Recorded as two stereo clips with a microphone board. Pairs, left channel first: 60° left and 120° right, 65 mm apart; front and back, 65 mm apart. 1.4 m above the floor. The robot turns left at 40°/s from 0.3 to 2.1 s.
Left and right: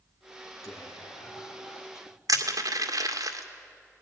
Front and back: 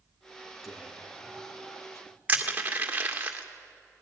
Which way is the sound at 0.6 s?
90° left.